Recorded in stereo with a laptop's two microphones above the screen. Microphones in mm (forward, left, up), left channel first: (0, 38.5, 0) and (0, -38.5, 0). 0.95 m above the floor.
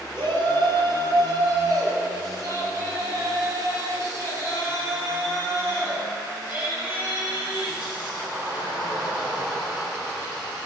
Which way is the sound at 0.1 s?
70° right (ahead or behind).